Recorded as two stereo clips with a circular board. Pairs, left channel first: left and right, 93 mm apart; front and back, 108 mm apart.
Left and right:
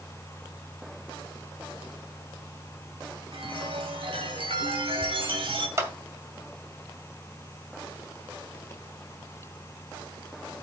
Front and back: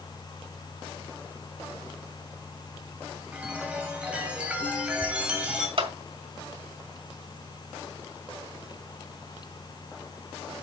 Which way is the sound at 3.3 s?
100° right.